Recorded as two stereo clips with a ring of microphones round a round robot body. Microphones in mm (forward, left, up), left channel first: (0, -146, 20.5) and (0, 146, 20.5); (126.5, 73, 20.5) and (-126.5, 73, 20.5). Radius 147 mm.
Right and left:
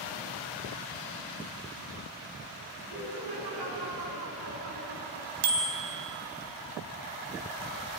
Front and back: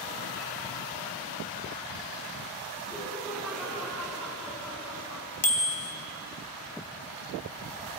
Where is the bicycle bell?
60° left, 3.5 m.